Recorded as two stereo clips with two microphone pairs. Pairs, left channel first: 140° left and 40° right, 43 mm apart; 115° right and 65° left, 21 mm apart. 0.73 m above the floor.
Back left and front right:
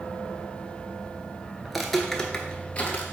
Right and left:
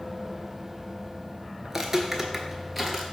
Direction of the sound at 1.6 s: 35° left.